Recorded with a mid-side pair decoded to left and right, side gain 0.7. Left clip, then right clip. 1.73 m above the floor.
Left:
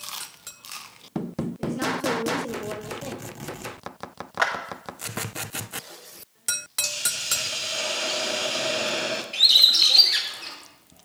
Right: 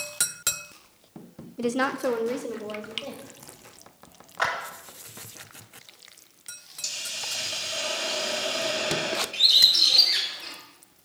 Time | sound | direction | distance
1.6 | a woman speaking | 65° right | 0.8 m
4.4 | a clap | 35° left | 1.8 m
6.8 | a hiss | 20° left | 1.2 m
9.3 | a bird | 25° left | 2.5 m